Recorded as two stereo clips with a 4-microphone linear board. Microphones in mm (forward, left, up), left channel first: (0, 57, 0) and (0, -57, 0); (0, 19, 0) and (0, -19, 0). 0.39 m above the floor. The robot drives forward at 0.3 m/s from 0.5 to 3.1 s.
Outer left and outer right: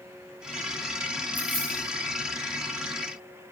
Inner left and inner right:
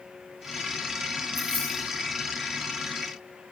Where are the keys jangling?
15° left (ahead or behind), 3 m.